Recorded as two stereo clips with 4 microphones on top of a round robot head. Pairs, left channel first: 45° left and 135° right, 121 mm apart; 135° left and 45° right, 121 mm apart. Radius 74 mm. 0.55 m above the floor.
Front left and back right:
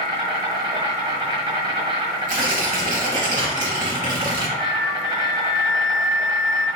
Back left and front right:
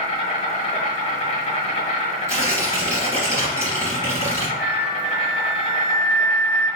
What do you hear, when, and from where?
0.0 s an insect: 175° left, 1.2 m
2.3 s tearing paper: 115° right, 1.4 m
4.6 s a flute: 130° right, 1.1 m